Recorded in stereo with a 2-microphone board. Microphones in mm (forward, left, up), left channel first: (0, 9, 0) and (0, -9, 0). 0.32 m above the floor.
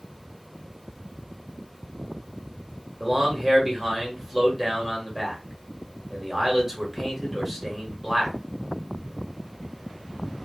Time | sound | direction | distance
3.0 | a man speaking | 15° right (ahead or behind) | 0.9 m